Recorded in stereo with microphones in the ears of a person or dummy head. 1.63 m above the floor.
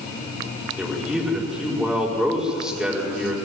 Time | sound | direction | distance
0.8 | a man speaking | 5° left (ahead or behind) | 5 m